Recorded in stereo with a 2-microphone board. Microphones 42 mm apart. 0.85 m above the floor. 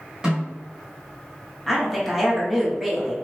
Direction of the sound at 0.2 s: 15° right (ahead or behind).